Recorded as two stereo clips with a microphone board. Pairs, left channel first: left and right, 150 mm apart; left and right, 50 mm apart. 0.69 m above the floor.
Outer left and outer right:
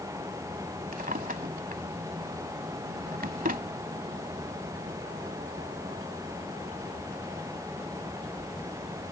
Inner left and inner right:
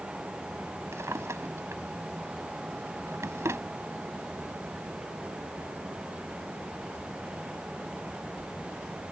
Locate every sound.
0.9 s a drawer: 75° right (ahead or behind)